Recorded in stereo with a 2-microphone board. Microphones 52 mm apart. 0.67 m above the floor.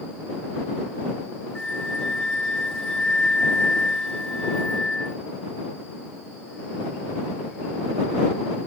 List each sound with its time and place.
1.6 s a flute: 20° left (ahead or behind)